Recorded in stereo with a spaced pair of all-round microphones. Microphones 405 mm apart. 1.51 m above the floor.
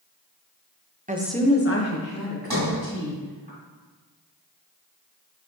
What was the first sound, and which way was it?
A woman speaking, 20° right (ahead or behind).